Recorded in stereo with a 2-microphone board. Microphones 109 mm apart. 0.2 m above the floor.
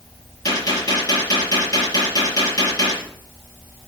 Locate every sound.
0.5 s a gunshot: 30° left (ahead or behind), 6 m